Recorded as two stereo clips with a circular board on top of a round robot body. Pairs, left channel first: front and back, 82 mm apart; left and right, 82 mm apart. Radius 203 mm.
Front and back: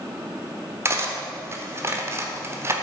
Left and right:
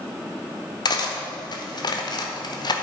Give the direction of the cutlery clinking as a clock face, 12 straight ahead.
8 o'clock.